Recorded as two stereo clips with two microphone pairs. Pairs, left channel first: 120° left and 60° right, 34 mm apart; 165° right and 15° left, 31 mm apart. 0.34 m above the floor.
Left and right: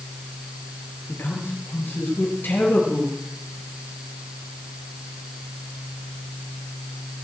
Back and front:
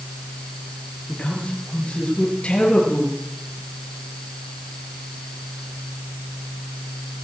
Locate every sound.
1.1 s a man speaking: 145° left, 7.5 m; by 3.2 s 140° left, 8.5 m